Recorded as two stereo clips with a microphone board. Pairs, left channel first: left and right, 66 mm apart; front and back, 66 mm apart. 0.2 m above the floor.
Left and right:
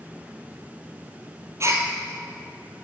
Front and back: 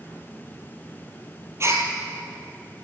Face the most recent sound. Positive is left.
turn(degrees=-135)